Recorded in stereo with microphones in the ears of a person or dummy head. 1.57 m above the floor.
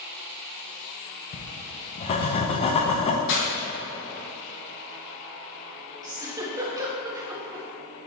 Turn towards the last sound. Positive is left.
turn(degrees=-25)  # may be behind; listen again after turning